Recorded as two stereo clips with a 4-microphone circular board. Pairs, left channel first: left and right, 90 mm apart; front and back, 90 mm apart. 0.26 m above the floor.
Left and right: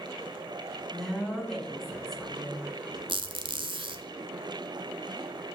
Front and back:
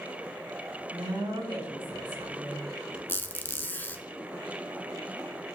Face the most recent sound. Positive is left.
turn(degrees=-70)